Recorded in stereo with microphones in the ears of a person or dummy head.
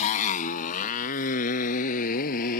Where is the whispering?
I don't hear whispering.